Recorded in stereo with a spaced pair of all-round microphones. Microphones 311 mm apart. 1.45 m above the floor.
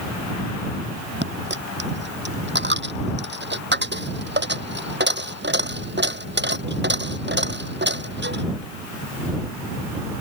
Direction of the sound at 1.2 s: 35° right (ahead or behind).